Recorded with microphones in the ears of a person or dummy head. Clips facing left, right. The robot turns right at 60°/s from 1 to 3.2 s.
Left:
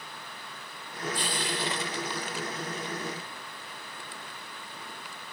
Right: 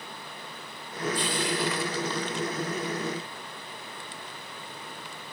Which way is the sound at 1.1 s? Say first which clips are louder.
Right 4 dB; 30° left (ahead or behind).